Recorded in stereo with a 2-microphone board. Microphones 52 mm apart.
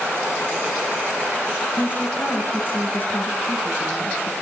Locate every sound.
1.8 s a woman speaking: 40° left (ahead or behind), 4 m